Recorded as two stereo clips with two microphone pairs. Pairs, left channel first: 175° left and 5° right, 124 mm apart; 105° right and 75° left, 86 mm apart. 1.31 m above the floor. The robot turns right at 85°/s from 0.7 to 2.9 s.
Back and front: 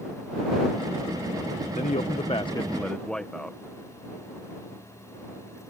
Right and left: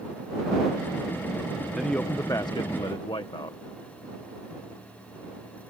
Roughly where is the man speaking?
Behind.